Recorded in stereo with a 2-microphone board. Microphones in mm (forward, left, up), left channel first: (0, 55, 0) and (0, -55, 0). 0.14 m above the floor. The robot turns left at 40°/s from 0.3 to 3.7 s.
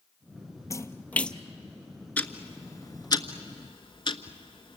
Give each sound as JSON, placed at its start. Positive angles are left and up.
{"t": 0.7, "sound": "a splash", "side_deg": 30, "distance_m": 0.7}
{"t": 2.2, "sound": "ticking", "side_deg": 15, "distance_m": 1.1}